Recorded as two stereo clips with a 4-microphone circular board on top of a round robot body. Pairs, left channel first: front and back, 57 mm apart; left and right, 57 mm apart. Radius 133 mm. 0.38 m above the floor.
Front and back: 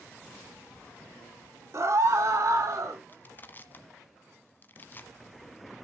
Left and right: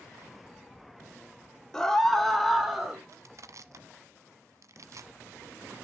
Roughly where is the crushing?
Ahead right.